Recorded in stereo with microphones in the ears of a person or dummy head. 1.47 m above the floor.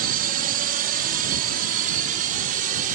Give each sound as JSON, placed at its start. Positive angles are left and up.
{"t": 0.0, "sound": "a drone", "side_deg": -45}